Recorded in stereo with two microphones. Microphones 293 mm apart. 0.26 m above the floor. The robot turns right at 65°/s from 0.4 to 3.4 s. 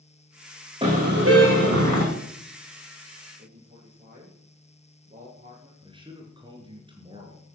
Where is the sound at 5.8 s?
15° right (ahead or behind), 4.5 m.